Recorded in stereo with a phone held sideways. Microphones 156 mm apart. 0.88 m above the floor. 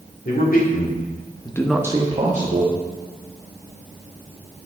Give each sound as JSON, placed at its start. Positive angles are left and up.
{"t": 0.2, "sound": "a man speaking", "side_deg": 70, "distance_m": 2.0}